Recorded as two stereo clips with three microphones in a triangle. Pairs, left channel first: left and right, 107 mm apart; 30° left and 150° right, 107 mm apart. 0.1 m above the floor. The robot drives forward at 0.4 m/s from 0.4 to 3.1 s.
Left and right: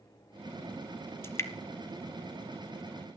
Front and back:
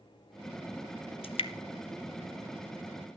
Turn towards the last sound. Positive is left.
turn(degrees=120)